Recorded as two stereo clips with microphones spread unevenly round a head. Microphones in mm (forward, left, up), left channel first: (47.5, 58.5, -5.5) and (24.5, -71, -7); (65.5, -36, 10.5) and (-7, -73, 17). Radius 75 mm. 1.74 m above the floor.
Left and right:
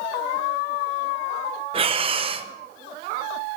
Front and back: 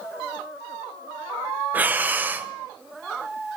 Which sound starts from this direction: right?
Breathing, at 1.7 s.